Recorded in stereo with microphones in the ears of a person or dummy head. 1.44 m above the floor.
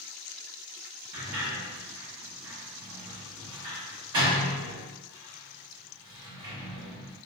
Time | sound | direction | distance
1.1 | a sliding door | 25° right (ahead or behind) | 0.7 m